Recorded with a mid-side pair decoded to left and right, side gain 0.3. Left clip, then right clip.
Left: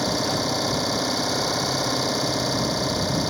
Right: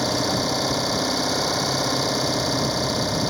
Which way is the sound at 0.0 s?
10° right.